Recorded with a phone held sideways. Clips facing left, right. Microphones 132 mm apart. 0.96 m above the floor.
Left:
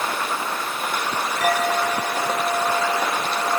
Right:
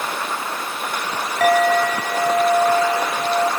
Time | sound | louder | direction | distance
1.4 | a clink | right 7 dB | 90° right | 2.5 m